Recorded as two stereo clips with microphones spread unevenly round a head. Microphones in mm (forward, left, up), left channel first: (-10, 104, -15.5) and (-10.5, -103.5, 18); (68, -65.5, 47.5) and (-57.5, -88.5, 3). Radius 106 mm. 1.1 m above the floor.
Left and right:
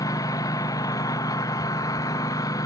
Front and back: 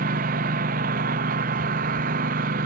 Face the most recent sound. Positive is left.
turn(degrees=165)